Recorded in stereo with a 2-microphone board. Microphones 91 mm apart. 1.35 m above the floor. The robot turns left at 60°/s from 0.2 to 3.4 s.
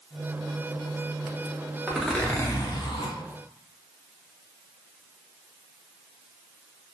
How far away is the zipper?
About 0.7 m.